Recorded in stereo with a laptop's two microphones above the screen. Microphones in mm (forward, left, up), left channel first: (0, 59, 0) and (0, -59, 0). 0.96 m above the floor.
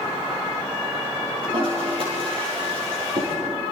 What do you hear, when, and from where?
1.4 s a toilet flushing: 50° right (ahead or behind), 5.5 m